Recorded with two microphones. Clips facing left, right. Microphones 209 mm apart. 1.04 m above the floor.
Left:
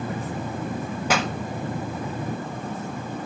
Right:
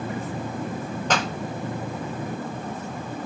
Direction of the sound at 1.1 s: 10° left (ahead or behind).